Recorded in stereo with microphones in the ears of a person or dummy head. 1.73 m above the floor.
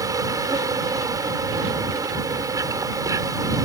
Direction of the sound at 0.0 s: 20° right (ahead or behind).